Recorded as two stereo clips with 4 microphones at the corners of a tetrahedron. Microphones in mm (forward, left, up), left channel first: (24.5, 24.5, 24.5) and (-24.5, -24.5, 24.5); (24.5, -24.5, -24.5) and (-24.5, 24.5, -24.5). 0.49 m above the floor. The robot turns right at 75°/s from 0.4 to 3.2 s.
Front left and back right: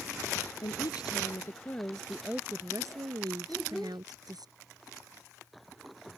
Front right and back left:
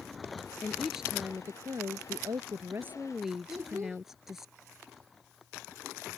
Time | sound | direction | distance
0.6 | a woman speaking | 25° left | ?
3.5 | a child speaking | 130° left | ?